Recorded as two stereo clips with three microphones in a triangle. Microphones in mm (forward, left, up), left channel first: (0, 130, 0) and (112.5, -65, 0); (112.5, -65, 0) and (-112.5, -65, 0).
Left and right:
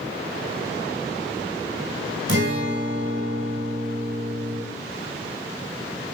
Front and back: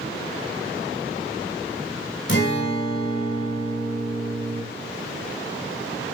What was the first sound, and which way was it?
A guitar, 30° right.